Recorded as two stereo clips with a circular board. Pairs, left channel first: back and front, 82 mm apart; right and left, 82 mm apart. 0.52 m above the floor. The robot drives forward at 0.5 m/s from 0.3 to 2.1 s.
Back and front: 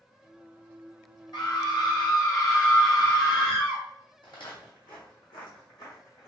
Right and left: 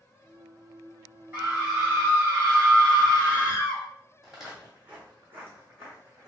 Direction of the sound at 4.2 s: Straight behind.